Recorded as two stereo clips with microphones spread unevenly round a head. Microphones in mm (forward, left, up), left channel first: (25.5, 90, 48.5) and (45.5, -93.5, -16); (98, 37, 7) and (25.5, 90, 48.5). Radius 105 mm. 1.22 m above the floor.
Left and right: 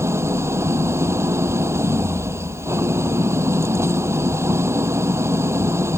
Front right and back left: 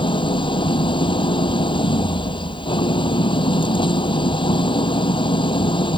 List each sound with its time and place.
0.0 s an engine running: 5° right